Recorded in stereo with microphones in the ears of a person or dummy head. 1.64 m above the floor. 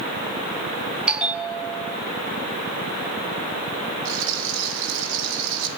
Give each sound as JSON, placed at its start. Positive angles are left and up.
{"t": 1.1, "sound": "a bell", "side_deg": -5, "distance_m": 1.0}
{"t": 4.0, "sound": "a rattle", "side_deg": -70, "distance_m": 3.5}